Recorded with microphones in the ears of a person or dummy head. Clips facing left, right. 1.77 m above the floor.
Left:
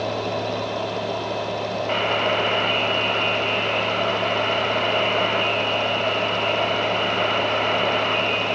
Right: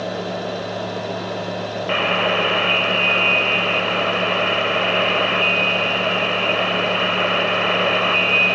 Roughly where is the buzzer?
Right.